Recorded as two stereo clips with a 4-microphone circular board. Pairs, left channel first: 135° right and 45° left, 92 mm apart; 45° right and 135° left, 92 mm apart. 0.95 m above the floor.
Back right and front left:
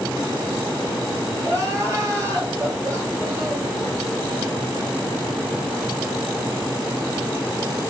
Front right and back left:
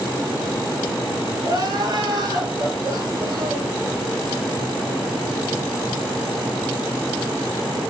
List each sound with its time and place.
1.4 s crying: 100° left, 5 m